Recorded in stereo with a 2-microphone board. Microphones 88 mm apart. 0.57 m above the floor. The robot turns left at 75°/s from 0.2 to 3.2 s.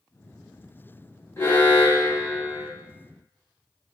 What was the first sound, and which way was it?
An alarm, 80° left.